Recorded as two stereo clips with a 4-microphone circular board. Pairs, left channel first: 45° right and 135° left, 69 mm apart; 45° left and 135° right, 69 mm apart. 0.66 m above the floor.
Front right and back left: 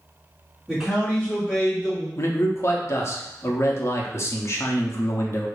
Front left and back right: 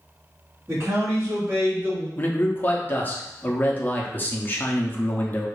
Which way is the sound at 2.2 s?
10° right.